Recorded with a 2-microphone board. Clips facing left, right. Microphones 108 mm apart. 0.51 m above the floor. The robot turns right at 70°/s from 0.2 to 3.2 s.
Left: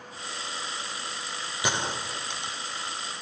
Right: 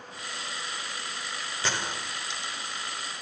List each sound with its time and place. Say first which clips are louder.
1.6 s a gunshot: left 3 dB; 15° left (ahead or behind), 0.9 m; by 2.6 s 65° left (ahead or behind), 0.9 m